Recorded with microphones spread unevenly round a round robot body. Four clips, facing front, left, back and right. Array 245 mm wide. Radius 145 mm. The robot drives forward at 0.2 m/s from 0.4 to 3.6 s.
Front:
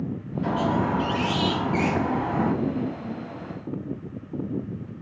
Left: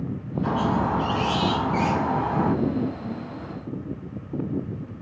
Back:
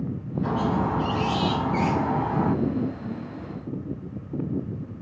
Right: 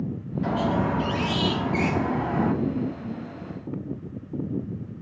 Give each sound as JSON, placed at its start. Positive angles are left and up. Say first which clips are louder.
{"t": 0.4, "sound": "a squeak", "louder": "left 1 dB, front 1 dB", "azimuth_deg": -90, "distance_m": 4.5}